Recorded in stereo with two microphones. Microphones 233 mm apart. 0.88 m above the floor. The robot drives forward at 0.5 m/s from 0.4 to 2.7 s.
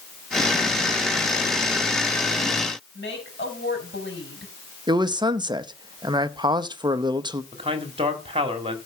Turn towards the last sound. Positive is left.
turn(degrees=-25)  # may be behind; listen again after turning